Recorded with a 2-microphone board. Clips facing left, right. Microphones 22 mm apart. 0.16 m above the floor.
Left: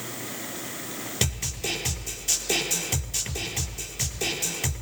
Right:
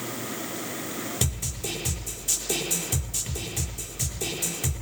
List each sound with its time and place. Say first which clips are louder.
1.2 s a snare drum: left 2 dB; 35° left (ahead or behind), 4 m